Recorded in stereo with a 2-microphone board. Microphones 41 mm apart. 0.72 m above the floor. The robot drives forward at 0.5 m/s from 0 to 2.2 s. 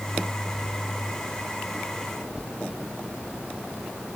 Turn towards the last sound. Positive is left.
No sound to turn to.